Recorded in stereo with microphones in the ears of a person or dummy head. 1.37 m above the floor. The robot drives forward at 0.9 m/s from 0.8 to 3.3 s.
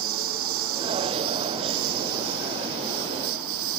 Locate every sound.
0.0 s a lawn mower: 85° right